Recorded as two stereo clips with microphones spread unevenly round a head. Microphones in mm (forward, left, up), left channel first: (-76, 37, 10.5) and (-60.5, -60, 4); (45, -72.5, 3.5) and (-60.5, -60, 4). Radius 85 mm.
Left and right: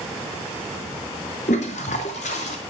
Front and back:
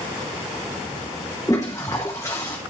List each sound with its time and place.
1.5 s a toilet flushing: 70° left, 0.8 m